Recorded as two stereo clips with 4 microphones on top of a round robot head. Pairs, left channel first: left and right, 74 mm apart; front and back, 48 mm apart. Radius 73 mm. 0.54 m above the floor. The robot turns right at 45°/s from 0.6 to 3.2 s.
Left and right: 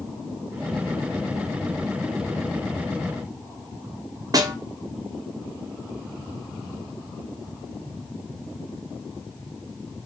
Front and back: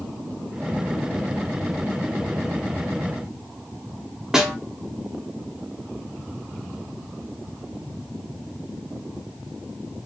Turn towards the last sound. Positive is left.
turn(degrees=-105)